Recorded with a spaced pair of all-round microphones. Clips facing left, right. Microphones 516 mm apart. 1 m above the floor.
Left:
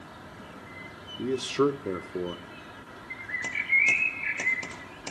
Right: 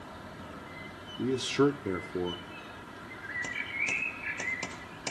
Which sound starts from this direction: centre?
A man speaking, at 1.2 s.